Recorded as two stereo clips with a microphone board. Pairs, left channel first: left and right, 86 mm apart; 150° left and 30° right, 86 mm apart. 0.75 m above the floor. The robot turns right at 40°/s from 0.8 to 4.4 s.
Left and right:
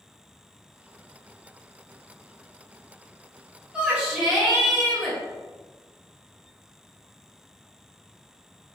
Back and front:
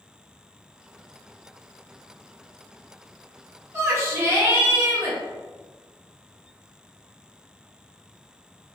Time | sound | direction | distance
3.7 | a shout | 30° right | 1.1 m